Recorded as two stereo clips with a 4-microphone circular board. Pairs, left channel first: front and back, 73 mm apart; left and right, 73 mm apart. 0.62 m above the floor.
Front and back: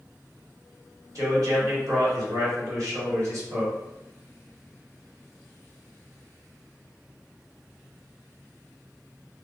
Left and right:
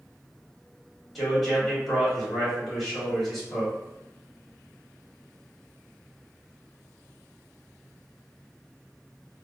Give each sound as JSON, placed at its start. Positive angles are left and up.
{"t": 1.1, "sound": "a man speaking", "azimuth_deg": 180, "distance_m": 1.5}